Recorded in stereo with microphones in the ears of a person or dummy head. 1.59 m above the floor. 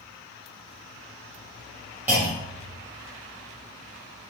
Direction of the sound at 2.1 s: 10° right (ahead or behind).